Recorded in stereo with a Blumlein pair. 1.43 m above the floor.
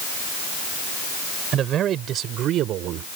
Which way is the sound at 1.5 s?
30° right.